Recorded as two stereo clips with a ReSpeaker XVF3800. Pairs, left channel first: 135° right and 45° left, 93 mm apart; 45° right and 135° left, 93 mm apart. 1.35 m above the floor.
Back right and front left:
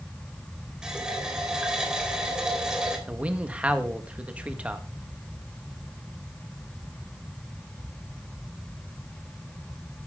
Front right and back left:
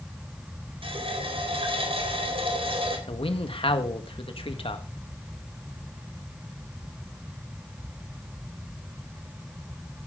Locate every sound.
0.8 s a running tap: 125° left, 4 m
3.1 s a man speaking: 30° right, 1.8 m